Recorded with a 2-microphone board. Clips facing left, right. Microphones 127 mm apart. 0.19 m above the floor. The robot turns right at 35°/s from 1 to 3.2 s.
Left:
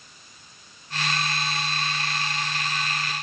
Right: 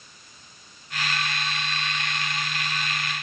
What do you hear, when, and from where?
Only background noise.